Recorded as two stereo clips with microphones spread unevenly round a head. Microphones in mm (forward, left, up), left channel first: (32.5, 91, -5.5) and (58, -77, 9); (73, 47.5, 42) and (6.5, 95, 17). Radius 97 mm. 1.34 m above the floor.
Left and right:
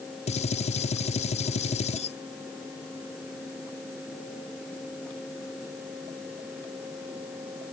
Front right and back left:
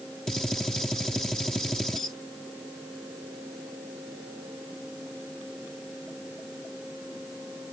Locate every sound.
0.3 s a gunshot: 50° left